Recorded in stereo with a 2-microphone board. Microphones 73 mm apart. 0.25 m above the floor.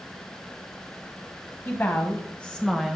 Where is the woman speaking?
30° left (ahead or behind), 1.5 m; by 3.0 s 5° right (ahead or behind), 1.0 m.